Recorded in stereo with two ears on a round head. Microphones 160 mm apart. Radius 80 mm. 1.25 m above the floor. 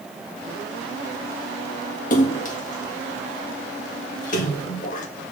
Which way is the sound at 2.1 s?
45° left (ahead or behind).